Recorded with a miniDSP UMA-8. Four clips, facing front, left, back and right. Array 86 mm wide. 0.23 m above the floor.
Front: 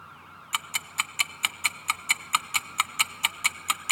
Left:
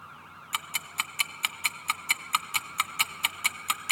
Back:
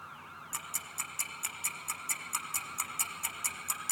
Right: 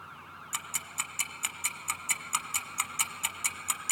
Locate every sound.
0.5 s ticking: 20° left, 0.5 m